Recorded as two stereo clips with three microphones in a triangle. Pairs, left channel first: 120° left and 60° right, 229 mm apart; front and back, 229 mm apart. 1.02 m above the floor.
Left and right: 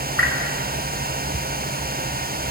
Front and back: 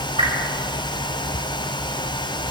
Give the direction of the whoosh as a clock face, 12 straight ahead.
8 o'clock.